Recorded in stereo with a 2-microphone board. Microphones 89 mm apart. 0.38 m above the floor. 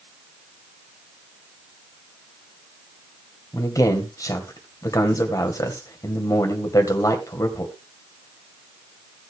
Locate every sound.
3.5 s a man speaking: 40° left (ahead or behind), 2.5 m